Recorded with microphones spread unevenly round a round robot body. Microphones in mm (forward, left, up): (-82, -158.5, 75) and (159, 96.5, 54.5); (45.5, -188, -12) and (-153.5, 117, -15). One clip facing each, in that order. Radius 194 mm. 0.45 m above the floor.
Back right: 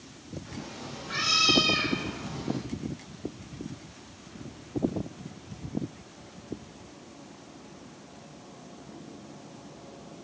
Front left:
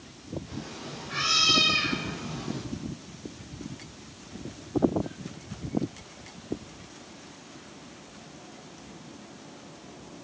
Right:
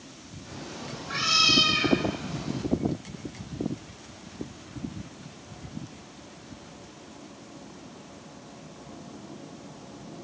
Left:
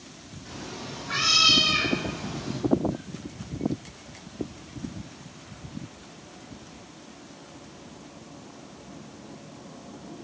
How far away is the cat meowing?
About 8.5 m.